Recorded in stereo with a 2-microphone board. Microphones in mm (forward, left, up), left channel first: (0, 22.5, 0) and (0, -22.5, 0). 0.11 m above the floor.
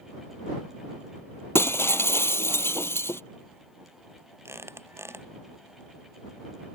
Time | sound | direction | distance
1.6 | breaking glass | 70° left (ahead or behind) | ?
4.5 | a squeak | 70° right (ahead or behind) | ?